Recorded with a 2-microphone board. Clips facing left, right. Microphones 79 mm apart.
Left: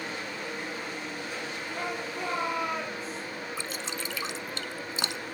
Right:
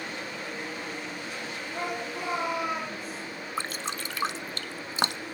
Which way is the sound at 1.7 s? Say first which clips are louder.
Right 2 dB; 20° right (ahead or behind).